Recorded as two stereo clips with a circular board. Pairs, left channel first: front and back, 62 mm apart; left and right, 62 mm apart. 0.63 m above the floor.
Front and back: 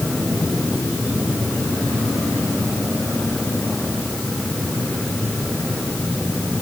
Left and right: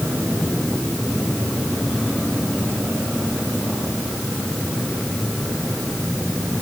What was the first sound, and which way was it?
Only background noise.